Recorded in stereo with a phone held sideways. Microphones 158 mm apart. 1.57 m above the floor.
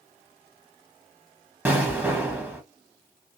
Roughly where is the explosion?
Centre.